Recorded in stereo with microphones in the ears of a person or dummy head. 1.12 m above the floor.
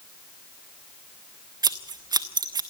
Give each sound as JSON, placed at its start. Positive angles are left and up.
{"t": 1.6, "sound": "scissors", "side_deg": -20, "distance_m": 1.3}